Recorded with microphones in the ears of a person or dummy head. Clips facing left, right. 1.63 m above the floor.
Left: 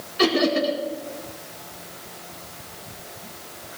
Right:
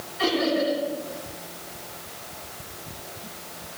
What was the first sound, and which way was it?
Laughter, 85° left.